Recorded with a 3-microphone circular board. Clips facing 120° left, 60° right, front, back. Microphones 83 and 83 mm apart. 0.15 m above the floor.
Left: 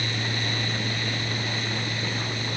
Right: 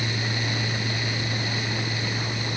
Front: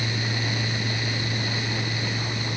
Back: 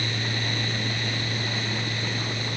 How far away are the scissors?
No scissors in this recording.